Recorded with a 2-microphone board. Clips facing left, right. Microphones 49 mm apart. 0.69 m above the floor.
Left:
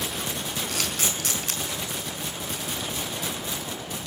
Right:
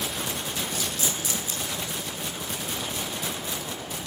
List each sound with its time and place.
0.7 s a camera shutter: 85° left, 4 m